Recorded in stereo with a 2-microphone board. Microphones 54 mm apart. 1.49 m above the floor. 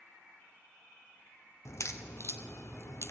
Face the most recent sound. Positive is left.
turn(degrees=60)  # may be behind; listen again after turning